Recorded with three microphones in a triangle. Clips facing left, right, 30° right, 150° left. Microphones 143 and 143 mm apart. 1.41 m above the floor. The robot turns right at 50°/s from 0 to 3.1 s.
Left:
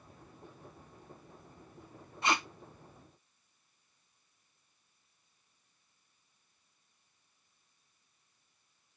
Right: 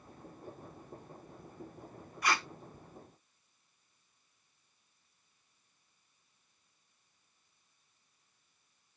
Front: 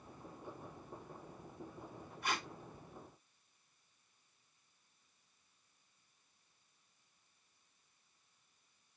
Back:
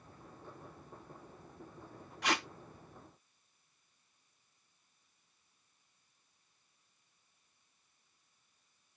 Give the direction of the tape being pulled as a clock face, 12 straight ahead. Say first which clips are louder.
Left 1 dB, back 5 dB; 7 o'clock.